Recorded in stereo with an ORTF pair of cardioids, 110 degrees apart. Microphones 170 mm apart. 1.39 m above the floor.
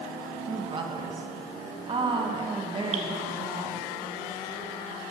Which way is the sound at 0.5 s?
30° right.